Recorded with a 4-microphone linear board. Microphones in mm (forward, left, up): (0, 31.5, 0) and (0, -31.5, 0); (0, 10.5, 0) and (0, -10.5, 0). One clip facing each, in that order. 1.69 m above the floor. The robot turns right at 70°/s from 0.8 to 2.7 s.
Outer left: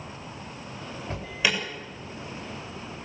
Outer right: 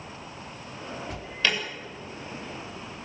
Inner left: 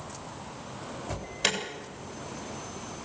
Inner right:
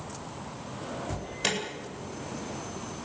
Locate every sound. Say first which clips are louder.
1.1 s an alarm: outer left 1 dB, inner left 2 dB; 40° left (ahead or behind), 8.5 m; by 1.6 s 5° left (ahead or behind), 8.5 m